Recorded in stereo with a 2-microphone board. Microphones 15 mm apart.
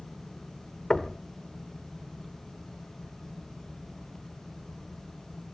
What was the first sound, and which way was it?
Knocking, 55° left (ahead or behind).